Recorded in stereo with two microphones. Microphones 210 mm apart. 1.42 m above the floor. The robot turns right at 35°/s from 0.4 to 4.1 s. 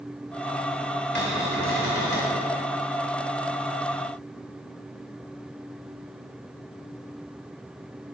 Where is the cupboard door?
60° left, 3 m; by 2.4 s 100° left, 3 m.